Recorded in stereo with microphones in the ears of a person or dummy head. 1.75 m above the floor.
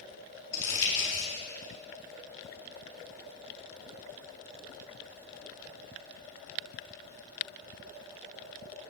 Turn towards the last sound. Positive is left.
turn(degrees=15)  # may be behind; listen again after turning